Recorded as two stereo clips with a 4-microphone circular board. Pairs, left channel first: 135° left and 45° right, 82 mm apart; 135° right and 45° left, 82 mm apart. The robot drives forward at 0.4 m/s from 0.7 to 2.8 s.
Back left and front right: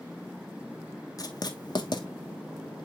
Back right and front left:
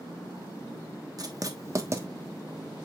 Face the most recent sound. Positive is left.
turn(degrees=115)